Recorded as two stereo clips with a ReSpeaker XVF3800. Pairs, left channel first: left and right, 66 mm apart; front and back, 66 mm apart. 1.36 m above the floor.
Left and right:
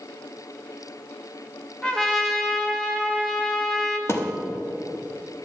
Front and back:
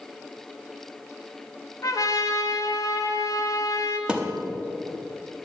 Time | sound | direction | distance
1.8 | a trumpet | 15° left | 1.2 m
4.1 | a thud | 110° left | 1.0 m